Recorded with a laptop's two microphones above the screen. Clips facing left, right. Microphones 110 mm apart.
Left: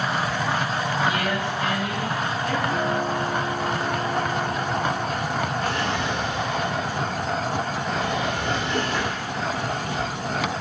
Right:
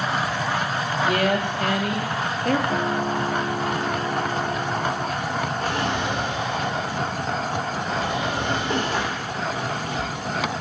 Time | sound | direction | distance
1.1 | a woman speaking | 55° right (ahead or behind) | 1.3 m
2.7 | a guitar | 25° right (ahead or behind) | 2 m
5.6 | a drawer | 40° right (ahead or behind) | 1.7 m